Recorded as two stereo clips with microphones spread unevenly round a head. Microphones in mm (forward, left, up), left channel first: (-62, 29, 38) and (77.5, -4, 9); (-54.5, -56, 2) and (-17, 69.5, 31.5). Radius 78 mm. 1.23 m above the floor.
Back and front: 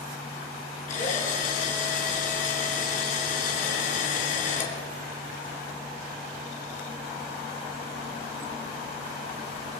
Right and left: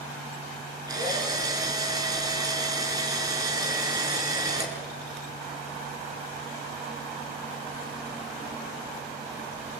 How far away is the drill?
About 6 m.